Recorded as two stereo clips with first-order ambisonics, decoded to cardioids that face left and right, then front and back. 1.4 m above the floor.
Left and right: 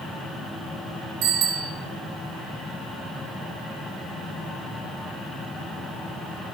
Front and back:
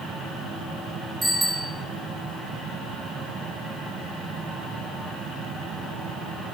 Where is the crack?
No crack in this recording.